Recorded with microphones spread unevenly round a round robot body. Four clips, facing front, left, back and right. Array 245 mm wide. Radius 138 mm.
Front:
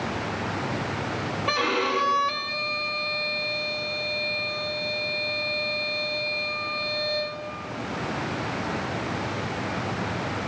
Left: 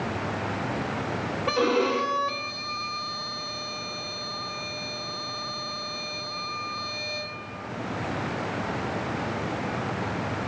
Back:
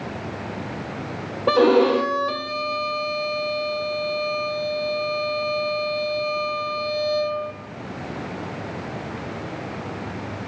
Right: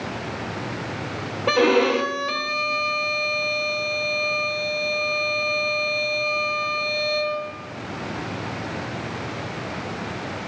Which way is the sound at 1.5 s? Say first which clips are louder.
Right 6 dB, back 11 dB; 160° right.